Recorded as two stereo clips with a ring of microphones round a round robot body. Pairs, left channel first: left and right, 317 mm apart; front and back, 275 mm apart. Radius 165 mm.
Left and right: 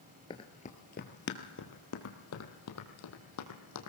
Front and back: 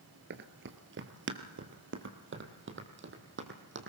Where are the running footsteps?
160° left, 1.0 m; by 3.9 s 130° left, 2.5 m.